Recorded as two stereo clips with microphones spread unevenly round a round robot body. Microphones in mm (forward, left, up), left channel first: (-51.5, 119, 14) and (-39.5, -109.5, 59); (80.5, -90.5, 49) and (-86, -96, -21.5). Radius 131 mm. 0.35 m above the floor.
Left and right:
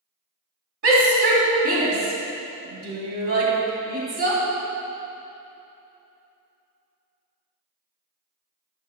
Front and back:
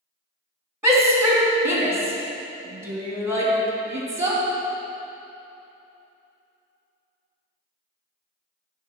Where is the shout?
115° right, 2.5 m.